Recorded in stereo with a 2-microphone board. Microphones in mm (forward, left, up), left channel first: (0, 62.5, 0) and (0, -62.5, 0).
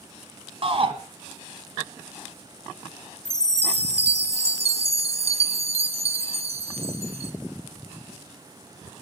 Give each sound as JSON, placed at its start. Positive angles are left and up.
{"t": 0.6, "sound": "a shout", "side_deg": -50, "distance_m": 2.0}
{"t": 3.2, "sound": "a chime", "side_deg": -55, "distance_m": 1.1}